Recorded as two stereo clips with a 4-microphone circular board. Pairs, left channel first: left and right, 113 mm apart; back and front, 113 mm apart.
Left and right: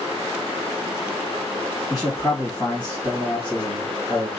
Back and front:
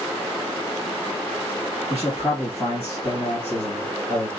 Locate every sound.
1.9 s a man speaking: straight behind, 4 m